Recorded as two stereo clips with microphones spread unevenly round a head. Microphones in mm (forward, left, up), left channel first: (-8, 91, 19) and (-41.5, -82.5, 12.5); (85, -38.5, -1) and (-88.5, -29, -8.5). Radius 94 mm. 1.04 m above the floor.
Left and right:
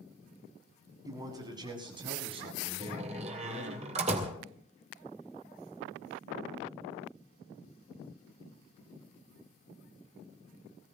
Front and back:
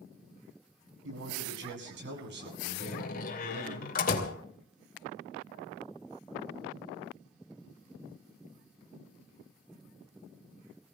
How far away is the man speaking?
About 8.5 m.